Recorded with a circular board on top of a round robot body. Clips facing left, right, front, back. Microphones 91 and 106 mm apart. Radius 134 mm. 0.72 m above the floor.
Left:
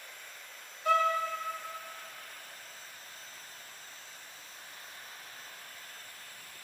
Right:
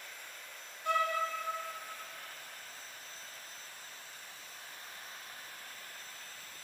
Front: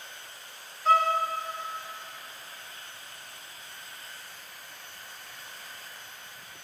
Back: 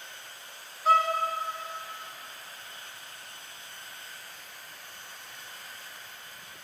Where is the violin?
95° left, 2.5 m.